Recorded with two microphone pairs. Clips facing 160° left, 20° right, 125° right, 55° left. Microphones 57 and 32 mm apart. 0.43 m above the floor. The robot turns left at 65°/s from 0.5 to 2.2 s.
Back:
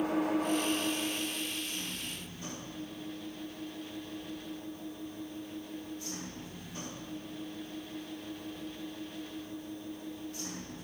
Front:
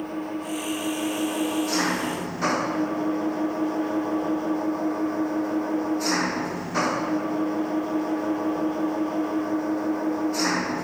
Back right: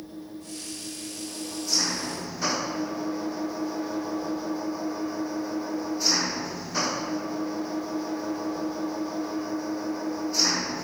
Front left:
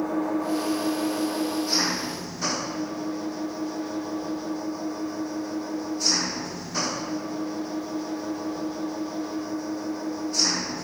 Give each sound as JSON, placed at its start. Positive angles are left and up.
{"t": 0.0, "sound": "an engine running", "azimuth_deg": 70}